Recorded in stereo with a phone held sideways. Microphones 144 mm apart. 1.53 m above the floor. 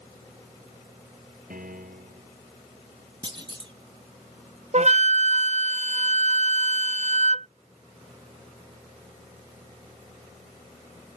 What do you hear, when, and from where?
1.5 s a piano: 75° right (ahead or behind)
3.2 s a clunk: 35° right (ahead or behind)
4.7 s a flute: 50° right (ahead or behind)